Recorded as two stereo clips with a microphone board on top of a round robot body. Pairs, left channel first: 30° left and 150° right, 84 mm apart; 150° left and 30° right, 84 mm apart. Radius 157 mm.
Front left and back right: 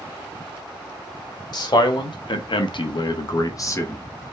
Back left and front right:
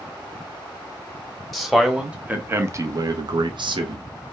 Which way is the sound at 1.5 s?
60° left.